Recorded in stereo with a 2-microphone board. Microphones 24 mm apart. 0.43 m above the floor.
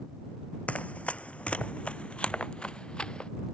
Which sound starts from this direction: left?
Running footsteps, at 0.7 s.